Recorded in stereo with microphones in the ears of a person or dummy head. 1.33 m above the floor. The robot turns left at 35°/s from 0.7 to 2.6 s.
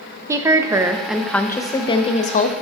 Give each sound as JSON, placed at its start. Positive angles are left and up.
{"t": 0.3, "sound": "a woman speaking", "azimuth_deg": -165, "distance_m": 0.5}